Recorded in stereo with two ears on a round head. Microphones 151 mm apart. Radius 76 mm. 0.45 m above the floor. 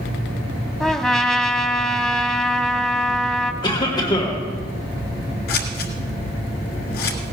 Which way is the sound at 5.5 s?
65° left (ahead or behind).